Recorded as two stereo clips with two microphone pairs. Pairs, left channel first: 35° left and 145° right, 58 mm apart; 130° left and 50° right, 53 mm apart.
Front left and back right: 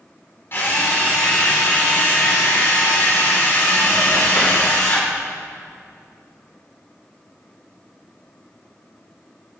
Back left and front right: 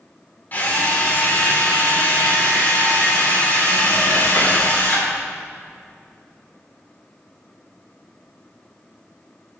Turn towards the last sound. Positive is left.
turn(degrees=80)